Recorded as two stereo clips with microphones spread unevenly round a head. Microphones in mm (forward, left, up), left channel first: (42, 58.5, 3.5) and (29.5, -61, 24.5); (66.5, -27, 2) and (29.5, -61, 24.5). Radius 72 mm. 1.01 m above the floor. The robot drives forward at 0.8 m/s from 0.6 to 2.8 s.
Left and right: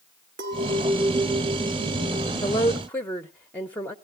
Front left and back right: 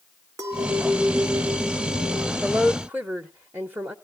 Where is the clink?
125° right, 2.5 m; by 2.3 s 145° right, 3.5 m.